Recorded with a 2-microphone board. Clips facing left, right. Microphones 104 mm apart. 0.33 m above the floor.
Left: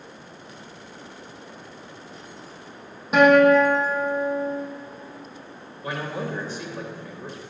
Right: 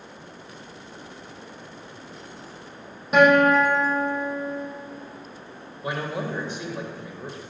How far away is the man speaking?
About 1.3 m.